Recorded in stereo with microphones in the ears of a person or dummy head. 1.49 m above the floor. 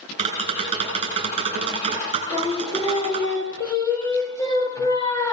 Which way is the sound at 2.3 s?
10° left (ahead or behind).